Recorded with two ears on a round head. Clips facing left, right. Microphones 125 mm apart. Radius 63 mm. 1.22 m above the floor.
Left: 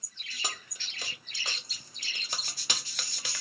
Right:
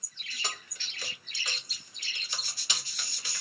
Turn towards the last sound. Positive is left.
turn(degrees=65)  # may be behind; listen again after turning